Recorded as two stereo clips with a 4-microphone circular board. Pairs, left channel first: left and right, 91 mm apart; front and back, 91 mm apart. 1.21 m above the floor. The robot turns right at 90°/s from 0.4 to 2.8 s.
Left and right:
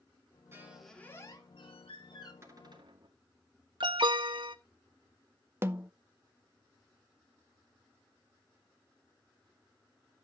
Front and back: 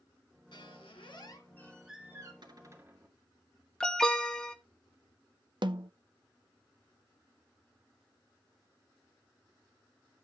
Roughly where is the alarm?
Right.